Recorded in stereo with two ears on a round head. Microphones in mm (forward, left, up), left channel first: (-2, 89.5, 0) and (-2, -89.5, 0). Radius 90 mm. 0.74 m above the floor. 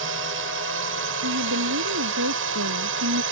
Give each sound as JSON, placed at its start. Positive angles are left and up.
{"t": 0.0, "sound": "a drone", "side_deg": -65}
{"t": 1.2, "sound": "a woman speaking", "side_deg": -85}